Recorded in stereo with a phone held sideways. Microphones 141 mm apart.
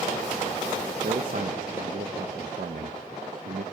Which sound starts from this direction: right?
A man speaking, at 1.0 s.